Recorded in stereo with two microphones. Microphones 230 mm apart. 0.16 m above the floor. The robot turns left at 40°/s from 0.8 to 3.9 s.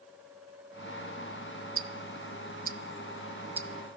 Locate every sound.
1.8 s ticking: 60° right (ahead or behind), 0.7 m; by 4.0 s 5° left (ahead or behind), 0.7 m